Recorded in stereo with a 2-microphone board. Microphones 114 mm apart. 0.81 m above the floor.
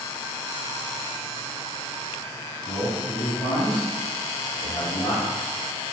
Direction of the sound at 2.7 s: 70° left (ahead or behind).